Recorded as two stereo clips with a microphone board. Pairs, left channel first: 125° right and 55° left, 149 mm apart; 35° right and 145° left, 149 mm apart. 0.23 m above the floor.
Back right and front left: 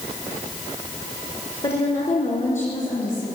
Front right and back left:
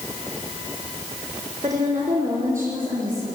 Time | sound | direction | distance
1.6 | a woman speaking | 165° right | 2.5 m